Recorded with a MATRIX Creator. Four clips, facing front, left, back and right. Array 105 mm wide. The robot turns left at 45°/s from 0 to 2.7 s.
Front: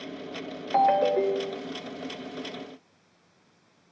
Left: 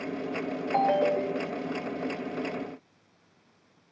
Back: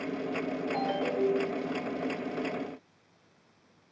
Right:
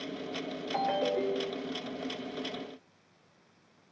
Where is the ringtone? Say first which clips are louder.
Left 6 dB, front 11 dB; 30° left, 0.6 m; by 1.7 s 15° right, 0.6 m.